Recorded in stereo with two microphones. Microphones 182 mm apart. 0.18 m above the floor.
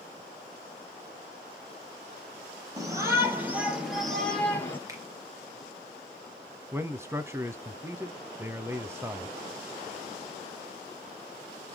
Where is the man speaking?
15° right (ahead or behind), 1.1 m.